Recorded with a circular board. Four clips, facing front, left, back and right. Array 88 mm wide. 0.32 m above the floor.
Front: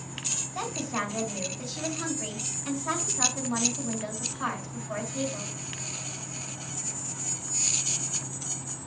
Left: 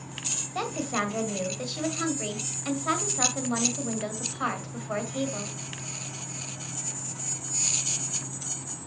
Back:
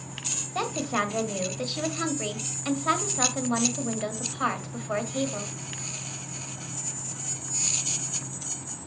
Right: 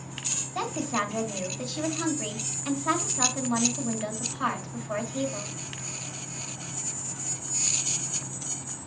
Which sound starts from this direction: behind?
A woman speaking, at 0.6 s.